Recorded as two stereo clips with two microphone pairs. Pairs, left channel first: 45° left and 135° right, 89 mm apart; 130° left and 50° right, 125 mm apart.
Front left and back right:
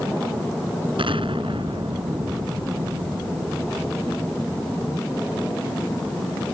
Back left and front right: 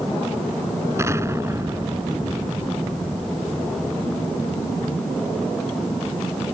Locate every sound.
1.0 s an explosion: 120° right